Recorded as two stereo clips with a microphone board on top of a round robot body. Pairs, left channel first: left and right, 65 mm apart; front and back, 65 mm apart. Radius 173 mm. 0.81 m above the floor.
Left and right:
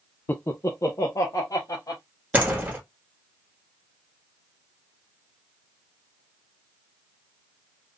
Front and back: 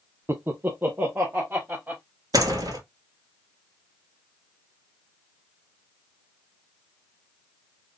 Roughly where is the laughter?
Behind left.